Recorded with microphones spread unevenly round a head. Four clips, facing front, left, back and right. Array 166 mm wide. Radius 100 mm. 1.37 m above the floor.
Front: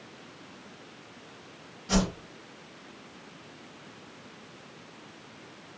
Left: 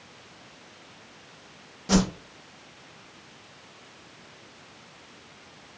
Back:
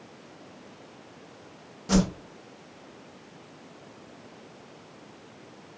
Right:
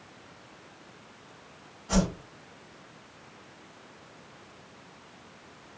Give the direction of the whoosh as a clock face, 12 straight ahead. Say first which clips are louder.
Left 4 dB, back 3 dB; 7 o'clock.